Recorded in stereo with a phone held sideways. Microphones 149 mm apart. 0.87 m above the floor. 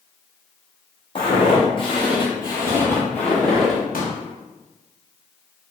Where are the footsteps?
40° left (ahead or behind), 1.3 m; by 3.8 s centre (ahead or behind), 1.4 m.